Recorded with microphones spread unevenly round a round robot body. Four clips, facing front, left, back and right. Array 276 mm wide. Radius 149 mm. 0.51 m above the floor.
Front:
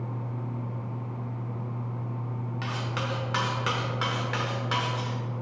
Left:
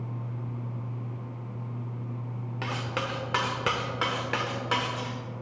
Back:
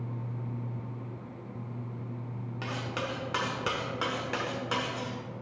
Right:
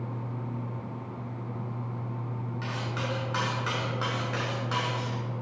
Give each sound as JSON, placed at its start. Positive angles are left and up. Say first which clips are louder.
{"t": 2.6, "sound": "cutlery clinking", "louder": "left 3 dB, front 1 dB", "azimuth_deg": 85, "distance_m": 1.0}